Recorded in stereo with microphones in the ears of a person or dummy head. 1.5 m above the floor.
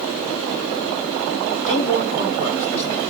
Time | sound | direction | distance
1.7 | a man speaking | 45° left (ahead or behind) | 6 m